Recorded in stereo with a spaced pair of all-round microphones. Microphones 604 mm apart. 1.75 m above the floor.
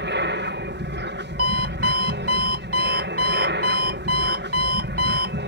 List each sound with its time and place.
0.0 s an aircraft: 15° right (ahead or behind)
1.4 s an alarm clock: 65° right (ahead or behind)